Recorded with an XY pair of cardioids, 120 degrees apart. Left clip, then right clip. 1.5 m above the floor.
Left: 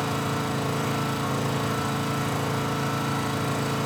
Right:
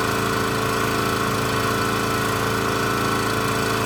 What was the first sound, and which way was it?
An engine running, 70° right.